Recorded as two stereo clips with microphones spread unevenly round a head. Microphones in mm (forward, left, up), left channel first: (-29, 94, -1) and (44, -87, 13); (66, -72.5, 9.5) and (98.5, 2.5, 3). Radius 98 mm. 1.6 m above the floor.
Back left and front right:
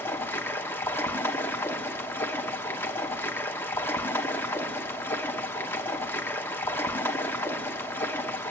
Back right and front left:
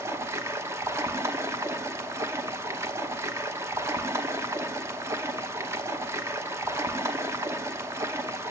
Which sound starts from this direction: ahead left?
Running water, at 0.0 s.